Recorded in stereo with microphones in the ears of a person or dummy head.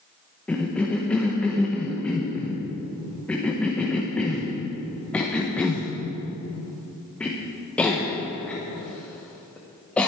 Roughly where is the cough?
Centre.